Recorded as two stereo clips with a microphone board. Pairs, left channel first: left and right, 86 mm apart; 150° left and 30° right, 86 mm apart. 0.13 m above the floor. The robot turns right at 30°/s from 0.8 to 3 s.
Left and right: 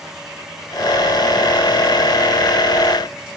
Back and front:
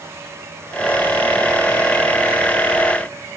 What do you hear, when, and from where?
Only background noise.